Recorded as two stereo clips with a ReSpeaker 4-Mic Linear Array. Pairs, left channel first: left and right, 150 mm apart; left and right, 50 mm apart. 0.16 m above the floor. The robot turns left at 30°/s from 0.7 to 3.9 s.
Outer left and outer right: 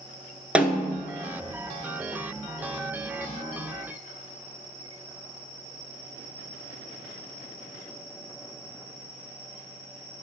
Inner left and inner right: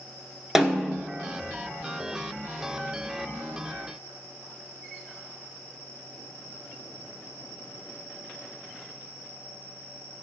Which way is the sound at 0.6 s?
10° right (ahead or behind).